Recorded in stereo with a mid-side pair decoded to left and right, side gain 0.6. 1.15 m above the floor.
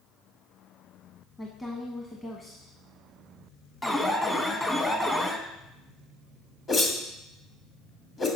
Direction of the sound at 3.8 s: 10° left.